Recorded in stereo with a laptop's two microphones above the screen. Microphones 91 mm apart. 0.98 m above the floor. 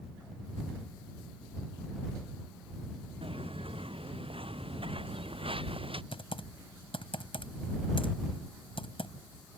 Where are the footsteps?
85° right; by 6.0 s 80° right.